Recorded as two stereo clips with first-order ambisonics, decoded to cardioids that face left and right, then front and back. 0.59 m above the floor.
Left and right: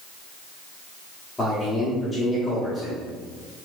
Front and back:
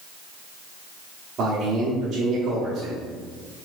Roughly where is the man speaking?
Behind.